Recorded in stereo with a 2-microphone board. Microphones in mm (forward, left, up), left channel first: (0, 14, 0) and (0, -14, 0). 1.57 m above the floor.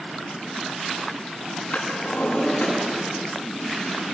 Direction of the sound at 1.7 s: 60° left (ahead or behind).